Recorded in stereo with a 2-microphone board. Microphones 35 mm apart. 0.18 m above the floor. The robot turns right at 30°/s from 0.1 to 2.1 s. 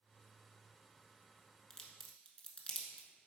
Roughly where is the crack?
Left.